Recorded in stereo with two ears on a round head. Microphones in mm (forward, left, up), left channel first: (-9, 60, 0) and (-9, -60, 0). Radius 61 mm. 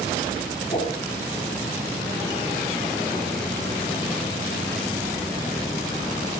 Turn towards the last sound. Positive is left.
turn(degrees=30)  # may be behind; listen again after turning